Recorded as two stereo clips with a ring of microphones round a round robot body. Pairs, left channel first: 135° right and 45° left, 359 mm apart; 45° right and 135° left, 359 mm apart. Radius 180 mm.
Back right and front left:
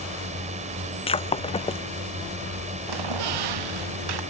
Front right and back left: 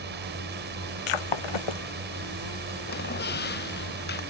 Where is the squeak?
20° left.